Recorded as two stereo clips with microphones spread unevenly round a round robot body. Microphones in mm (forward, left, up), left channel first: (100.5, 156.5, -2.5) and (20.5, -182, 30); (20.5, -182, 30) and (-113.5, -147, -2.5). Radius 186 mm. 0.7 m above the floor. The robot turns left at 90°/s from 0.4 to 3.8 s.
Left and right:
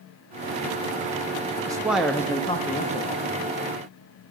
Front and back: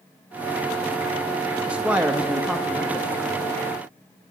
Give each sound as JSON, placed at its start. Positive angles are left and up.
{"t": 1.7, "sound": "a man speaking", "azimuth_deg": 180, "distance_m": 0.6}